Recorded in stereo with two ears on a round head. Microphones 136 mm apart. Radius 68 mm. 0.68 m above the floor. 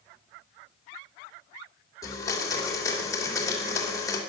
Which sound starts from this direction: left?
A blender, at 2.0 s.